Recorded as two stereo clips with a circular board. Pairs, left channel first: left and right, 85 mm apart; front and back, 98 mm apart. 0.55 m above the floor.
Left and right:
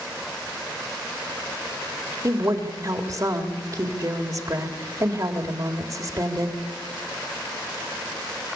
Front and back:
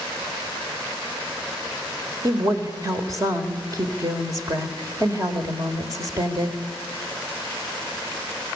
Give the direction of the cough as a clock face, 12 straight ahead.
No cough in this recording.